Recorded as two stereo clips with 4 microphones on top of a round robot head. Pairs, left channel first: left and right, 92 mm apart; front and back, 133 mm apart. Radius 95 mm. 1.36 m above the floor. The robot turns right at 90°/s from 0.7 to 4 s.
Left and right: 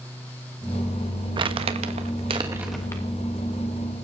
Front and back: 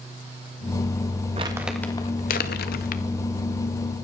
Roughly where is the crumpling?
Behind right.